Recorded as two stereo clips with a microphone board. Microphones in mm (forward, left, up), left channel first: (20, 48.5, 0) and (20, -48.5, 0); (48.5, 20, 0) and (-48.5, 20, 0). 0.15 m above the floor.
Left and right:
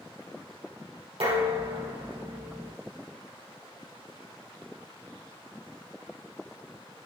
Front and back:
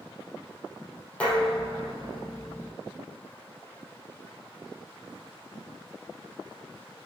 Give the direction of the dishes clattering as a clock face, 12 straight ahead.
3 o'clock.